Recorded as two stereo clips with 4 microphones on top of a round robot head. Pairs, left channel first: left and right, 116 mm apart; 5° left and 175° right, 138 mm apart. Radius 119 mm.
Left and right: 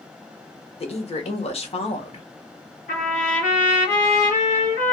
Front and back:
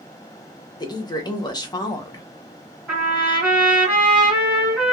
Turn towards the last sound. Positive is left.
turn(degrees=105)